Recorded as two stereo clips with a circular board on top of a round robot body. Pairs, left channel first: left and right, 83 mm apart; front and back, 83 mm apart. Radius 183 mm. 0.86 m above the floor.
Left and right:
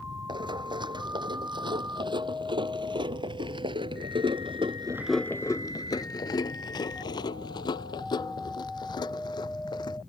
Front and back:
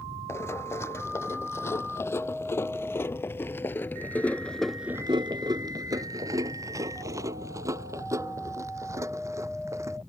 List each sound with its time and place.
0.3 s running footsteps: 60° right; by 10.0 s 125° left